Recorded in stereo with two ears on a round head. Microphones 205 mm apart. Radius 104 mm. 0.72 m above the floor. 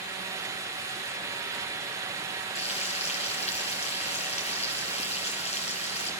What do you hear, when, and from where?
2.5 s frying: 30° left (ahead or behind), 5 m